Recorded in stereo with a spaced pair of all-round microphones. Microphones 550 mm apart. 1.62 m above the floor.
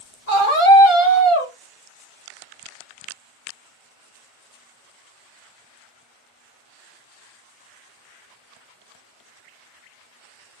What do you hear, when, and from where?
0.3 s a scream: 35° right (ahead or behind), 1.5 m